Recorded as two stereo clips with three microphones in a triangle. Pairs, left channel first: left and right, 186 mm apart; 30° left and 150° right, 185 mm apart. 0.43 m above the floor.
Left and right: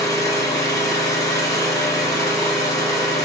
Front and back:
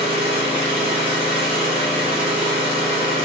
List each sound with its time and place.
0.0 s an engine running: 160° left, 1.6 m